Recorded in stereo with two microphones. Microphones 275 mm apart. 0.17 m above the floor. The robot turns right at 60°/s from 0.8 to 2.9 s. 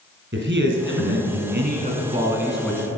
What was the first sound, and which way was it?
A man speaking, 110° right.